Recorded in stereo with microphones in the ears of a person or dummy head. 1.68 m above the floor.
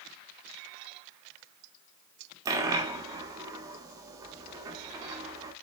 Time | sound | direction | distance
2.5 | a dropped coin | 20° right (ahead or behind) | 1.5 m